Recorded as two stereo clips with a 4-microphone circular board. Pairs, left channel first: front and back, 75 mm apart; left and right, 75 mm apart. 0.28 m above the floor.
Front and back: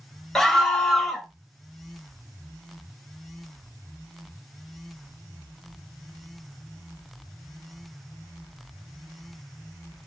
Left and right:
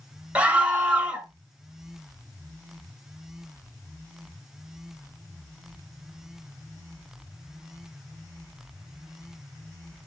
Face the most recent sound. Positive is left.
turn(degrees=-70)